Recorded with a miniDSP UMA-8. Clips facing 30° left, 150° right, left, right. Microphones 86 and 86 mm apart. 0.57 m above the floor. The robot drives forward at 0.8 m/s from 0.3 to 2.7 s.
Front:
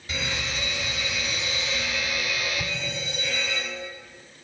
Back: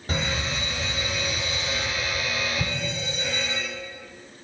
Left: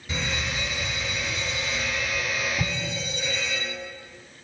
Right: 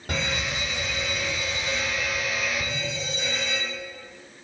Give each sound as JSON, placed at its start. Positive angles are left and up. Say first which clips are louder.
{"t": 0.1, "sound": "a fire alarm", "louder": "back 3 dB, right 1 dB", "azimuth_deg": -110, "distance_m": 5.5}
{"t": 2.6, "sound": "an explosion", "louder": "back 2 dB, left 1 dB", "azimuth_deg": 130, "distance_m": 1.0}